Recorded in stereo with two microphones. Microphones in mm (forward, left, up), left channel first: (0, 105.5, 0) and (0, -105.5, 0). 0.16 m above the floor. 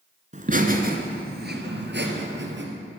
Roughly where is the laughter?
Right.